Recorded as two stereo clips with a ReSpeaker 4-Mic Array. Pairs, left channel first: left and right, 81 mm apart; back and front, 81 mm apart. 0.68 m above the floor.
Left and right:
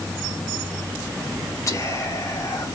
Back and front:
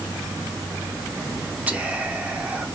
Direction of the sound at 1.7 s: 60° left.